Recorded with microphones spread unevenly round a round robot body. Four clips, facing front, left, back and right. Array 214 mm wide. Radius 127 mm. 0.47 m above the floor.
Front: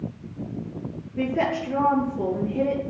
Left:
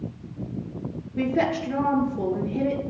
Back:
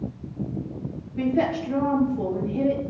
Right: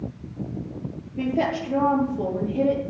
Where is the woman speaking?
75° left, 9.5 m.